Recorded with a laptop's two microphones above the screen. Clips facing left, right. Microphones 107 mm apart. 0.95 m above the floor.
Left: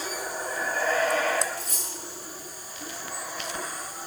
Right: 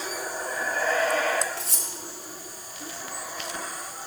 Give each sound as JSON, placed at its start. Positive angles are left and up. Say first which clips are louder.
{"t": 1.6, "sound": "cutlery clinking", "louder": "even", "side_deg": -80, "distance_m": 1.2}